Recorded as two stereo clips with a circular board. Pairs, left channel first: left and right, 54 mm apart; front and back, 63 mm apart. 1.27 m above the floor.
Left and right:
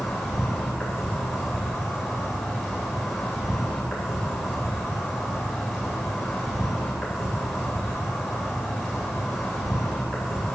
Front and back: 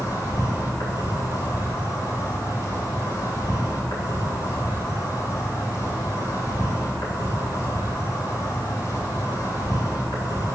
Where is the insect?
5° left, 3.5 m.